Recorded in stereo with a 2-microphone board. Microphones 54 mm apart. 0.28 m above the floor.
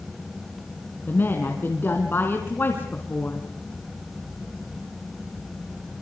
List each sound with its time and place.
1.1 s a woman speaking: 40° left (ahead or behind), 2.5 m